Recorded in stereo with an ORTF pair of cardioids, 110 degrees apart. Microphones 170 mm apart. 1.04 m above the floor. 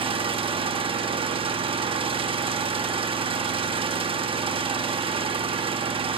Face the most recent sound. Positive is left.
turn(degrees=-35)